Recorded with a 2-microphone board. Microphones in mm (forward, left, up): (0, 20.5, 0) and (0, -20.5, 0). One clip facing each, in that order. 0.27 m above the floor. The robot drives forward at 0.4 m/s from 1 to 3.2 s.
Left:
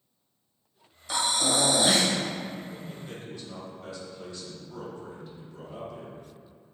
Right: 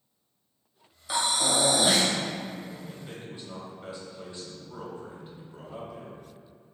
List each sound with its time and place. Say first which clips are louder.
1.1 s breathing: even; 10° right (ahead or behind), 1.6 m
2.7 s a man speaking: left 1 dB; 20° right (ahead or behind), 1.4 m